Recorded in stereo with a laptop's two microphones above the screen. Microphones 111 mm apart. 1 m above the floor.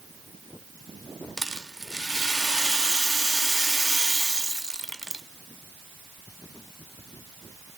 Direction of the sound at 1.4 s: 5° right (ahead or behind).